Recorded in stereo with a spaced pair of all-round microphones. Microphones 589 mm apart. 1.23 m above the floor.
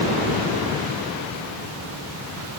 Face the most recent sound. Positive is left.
No sound to turn to.